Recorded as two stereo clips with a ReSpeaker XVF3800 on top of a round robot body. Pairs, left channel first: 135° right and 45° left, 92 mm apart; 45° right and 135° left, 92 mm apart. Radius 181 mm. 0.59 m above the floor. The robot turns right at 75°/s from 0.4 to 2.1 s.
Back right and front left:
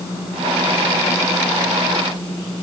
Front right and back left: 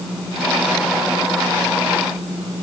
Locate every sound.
Only background noise.